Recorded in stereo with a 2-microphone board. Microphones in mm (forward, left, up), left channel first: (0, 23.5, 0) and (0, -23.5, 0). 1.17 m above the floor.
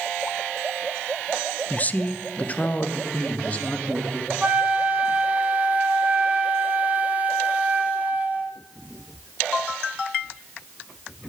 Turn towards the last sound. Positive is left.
turn(degrees=-30)  # may be behind; listen again after turning